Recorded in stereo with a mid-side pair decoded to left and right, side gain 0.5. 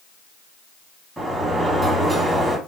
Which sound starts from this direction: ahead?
A sliding door, at 1.2 s.